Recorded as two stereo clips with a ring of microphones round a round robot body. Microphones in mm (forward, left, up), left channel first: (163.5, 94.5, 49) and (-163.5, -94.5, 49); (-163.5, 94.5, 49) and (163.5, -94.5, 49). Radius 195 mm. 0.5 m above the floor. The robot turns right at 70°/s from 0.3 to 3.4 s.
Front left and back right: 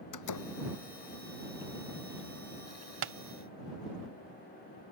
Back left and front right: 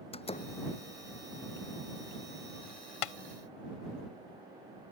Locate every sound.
0.1 s a door slam: 75° left; by 0.5 s 90° left
3.0 s tapping: 150° left; by 3.1 s 160° left